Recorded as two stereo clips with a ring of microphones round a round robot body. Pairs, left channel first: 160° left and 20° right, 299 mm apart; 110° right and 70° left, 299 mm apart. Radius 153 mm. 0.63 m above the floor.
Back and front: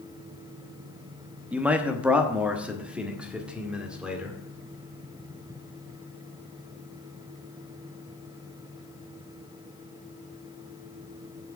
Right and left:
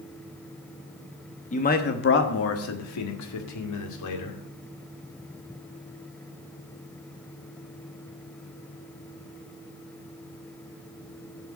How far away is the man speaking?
About 1.0 m.